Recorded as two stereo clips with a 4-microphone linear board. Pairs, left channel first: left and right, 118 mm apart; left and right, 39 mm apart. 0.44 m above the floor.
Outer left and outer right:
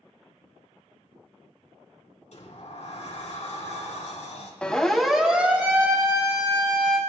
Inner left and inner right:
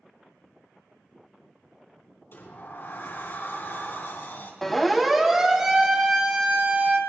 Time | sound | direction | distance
2.3 | a sliding door | 70° left (ahead or behind) | 3.5 m
4.6 | a siren | 10° left (ahead or behind) | 2.5 m